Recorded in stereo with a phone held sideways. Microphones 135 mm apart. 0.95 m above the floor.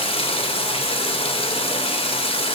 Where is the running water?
45° left (ahead or behind), 2.5 m.